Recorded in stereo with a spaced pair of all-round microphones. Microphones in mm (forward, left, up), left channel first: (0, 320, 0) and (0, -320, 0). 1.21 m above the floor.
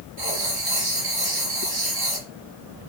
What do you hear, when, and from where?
0.2 s writing: 55° right (ahead or behind), 4 m